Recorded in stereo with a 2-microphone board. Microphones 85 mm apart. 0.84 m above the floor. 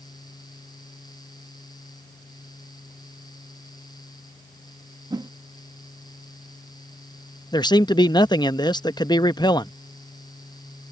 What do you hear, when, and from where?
5.1 s a whoosh: 55° right (ahead or behind)
7.5 s a man speaking: 60° left (ahead or behind)